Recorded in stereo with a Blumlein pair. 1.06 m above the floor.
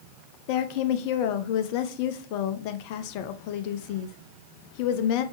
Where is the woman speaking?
45° left, 0.5 m.